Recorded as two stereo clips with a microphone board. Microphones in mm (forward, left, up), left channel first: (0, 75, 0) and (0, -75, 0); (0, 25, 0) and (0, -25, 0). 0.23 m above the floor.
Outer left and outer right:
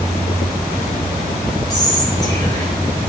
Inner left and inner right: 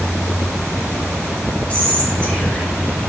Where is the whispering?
25° left (ahead or behind), 1.1 m.